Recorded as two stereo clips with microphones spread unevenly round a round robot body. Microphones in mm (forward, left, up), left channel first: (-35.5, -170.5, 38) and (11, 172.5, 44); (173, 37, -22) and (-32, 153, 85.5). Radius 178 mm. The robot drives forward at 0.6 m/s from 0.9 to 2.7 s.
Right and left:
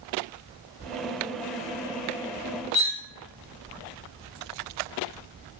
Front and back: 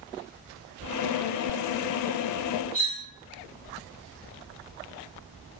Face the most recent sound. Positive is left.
turn(degrees=-140)